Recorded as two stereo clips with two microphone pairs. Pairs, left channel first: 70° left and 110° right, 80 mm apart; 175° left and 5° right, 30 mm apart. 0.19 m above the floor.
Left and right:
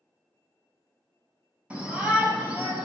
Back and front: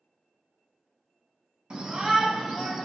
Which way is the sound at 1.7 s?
50° right.